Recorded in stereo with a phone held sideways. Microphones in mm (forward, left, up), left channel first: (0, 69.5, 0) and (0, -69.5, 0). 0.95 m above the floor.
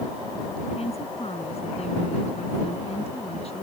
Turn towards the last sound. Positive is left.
turn(degrees=50)  # may be behind; listen again after turning